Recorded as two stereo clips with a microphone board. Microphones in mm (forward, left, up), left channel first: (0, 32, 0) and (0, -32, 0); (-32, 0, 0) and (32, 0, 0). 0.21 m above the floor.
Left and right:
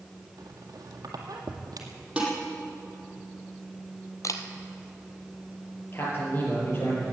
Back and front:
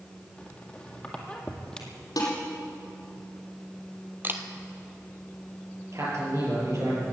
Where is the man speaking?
35° left, 6 m.